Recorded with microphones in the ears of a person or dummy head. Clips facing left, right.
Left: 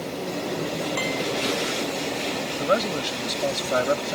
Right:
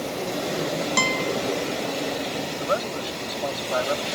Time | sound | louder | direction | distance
1.0 | a guitar | right 1 dB | 60° right (ahead or behind) | ?
2.6 | a man speaking | left 4 dB | 35° left (ahead or behind) | ?